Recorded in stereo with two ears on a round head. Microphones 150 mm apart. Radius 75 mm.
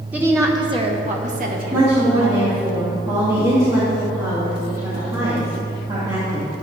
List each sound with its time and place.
0.1 s a woman speaking: 10° right (ahead or behind), 1.4 m; by 2.5 s 75° right (ahead or behind), 2 m
1.7 s a woman speaking: 20° right (ahead or behind), 2.5 m